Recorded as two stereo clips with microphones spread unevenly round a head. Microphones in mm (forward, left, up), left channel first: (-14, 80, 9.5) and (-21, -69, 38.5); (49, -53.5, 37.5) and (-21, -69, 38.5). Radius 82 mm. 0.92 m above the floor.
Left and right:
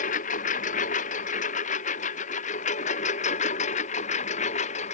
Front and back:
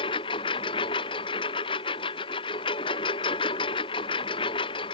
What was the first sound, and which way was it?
A lawn mower, 40° left.